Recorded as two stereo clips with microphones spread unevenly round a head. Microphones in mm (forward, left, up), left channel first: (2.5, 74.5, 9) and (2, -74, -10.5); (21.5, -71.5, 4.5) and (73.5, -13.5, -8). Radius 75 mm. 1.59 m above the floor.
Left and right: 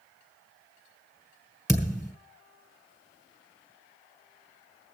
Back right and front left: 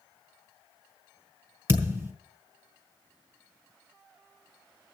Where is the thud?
20° left, 1.6 m.